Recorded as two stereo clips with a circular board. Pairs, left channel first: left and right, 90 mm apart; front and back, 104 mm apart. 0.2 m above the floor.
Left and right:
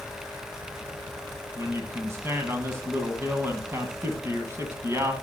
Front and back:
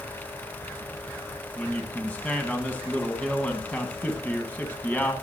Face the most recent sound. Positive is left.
turn(degrees=-60)